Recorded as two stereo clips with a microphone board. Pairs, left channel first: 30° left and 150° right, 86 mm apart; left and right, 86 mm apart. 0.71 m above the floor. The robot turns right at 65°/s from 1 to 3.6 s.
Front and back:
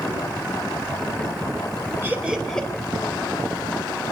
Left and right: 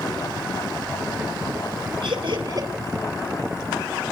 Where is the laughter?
90° right, 4 m; by 2.7 s 45° right, 4 m.